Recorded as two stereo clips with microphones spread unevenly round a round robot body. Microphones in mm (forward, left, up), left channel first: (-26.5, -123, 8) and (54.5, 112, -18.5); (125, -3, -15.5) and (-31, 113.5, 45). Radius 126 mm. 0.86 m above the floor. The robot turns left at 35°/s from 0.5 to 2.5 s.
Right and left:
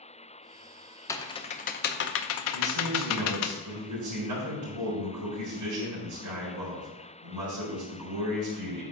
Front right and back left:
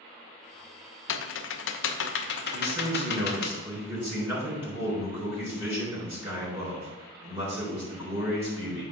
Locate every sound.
1.1 s typing on a keyboard: 30° right, 0.6 m; by 3.5 s 75° right, 0.6 m
2.5 s a man speaking: 70° left, 4 m